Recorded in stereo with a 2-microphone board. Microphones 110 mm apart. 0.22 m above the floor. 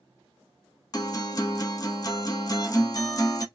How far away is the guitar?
About 0.8 m.